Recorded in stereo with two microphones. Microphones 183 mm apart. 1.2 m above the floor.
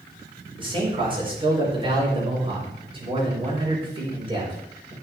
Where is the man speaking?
30° right (ahead or behind), 4.5 m.